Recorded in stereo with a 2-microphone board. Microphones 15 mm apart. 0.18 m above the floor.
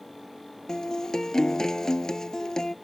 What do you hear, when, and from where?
0.7 s a guitar: 50° left (ahead or behind)